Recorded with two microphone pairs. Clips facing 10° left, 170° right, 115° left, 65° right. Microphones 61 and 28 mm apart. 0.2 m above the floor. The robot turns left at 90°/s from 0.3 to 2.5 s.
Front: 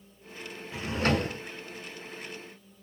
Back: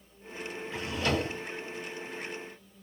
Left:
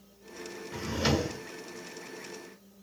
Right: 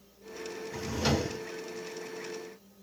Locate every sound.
0.7 s a drawer: 75° left, 0.7 m; by 1.4 s 15° left, 0.7 m